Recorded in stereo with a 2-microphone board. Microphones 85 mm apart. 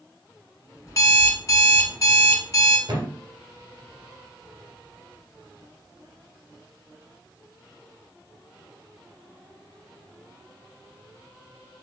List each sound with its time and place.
0.9 s an alarm clock: 40° left (ahead or behind), 1.1 m
2.9 s a thud: 50° right (ahead or behind), 2 m